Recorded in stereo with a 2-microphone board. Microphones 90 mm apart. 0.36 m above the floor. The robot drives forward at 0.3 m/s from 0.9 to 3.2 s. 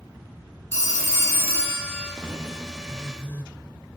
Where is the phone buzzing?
25° left (ahead or behind), 0.6 m; by 3.5 s 20° left (ahead or behind), 0.7 m.